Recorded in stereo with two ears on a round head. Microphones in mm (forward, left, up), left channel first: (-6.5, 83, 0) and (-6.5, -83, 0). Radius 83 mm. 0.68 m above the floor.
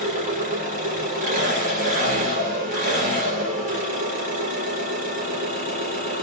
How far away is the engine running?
About 4 m.